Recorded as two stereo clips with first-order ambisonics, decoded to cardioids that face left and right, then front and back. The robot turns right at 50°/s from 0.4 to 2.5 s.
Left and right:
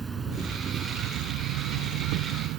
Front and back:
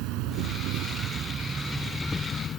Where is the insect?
165° right; by 2.6 s 60° right.